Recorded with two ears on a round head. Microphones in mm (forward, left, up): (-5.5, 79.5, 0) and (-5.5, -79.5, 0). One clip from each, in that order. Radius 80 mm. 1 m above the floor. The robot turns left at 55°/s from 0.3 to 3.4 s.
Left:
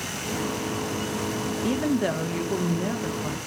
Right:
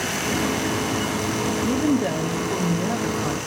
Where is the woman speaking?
80° left, 0.7 m; by 3.4 s 15° right, 0.7 m.